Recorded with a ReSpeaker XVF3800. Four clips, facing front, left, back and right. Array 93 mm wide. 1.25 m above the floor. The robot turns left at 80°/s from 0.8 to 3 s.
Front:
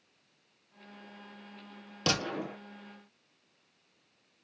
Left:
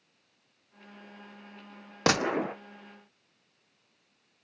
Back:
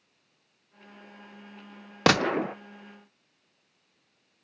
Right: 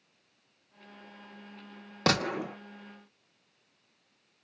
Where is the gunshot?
170° left, 0.9 m; by 2.5 s 130° left, 0.9 m.